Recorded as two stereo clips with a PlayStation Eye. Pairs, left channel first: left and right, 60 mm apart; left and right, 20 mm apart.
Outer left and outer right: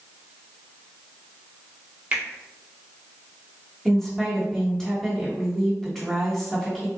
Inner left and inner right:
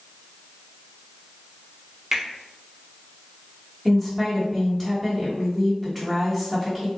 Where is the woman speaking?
10° left (ahead or behind), 1.1 m.